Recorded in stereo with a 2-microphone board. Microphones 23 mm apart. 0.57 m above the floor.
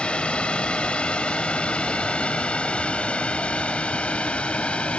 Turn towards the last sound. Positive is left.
turn(degrees=65)  # may be behind; listen again after turning